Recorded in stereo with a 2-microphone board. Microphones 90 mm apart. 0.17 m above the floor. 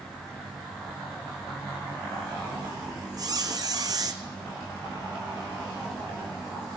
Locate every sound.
3.2 s a squeak: 45° right (ahead or behind), 0.9 m